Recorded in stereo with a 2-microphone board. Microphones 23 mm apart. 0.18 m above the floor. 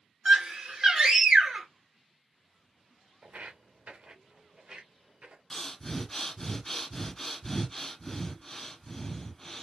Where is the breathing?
20° left (ahead or behind), 0.9 m.